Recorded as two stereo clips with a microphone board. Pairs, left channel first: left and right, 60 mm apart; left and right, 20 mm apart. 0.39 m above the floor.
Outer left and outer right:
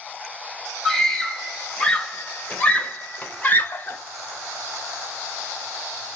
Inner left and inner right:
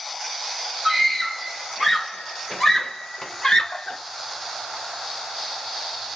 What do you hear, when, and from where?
0.8 s a scream: 10° left (ahead or behind), 2.5 m; by 4.0 s 35° left (ahead or behind), 1.4 m